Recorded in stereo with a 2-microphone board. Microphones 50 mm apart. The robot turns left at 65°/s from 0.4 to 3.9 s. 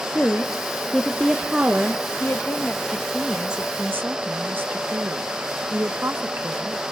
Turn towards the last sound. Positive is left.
turn(degrees=-45)